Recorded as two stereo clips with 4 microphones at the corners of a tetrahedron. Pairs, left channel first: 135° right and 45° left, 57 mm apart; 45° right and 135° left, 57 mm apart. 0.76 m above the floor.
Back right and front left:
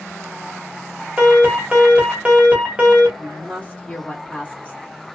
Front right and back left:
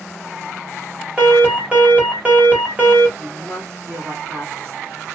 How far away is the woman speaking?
About 1.5 m.